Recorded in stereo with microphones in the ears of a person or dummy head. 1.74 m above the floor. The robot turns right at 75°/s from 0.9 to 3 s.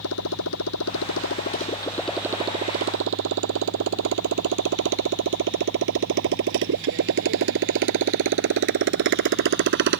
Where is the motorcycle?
85° left; by 10.0 s 60° right (ahead or behind).